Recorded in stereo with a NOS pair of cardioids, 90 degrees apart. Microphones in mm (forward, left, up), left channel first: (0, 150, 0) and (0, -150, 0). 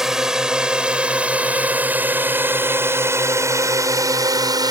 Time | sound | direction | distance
0.0 | a drone | straight ahead | ?